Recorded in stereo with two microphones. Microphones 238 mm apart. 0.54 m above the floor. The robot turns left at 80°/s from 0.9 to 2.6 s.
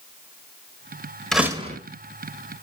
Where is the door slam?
5° left, 1.3 m; by 1.8 s 35° right, 1.3 m.